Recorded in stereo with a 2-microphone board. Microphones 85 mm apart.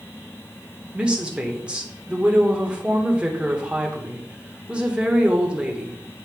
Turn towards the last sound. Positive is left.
turn(degrees=-15)  # may be behind; listen again after turning